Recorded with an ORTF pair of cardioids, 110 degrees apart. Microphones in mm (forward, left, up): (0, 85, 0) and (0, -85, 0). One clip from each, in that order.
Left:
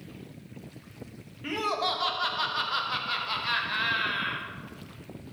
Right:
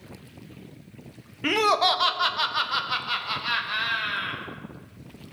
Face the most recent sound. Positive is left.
turn(degrees=-10)